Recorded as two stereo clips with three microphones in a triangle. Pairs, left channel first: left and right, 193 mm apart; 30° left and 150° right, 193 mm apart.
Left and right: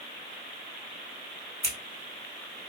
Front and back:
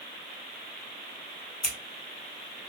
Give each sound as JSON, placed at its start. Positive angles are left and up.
{"t": 1.6, "sound": "scissors", "azimuth_deg": -60, "distance_m": 1.1}